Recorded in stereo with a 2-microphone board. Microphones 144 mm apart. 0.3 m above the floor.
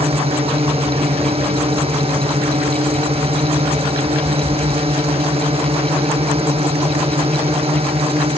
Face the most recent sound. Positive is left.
turn(degrees=-40)  # may be behind; listen again after turning